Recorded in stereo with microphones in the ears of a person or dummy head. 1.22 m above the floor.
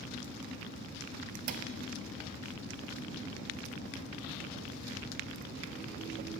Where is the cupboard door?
45° right (ahead or behind), 0.6 m.